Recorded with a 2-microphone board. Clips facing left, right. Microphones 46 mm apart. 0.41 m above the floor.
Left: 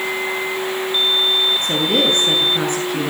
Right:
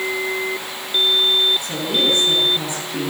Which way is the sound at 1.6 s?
55° left (ahead or behind).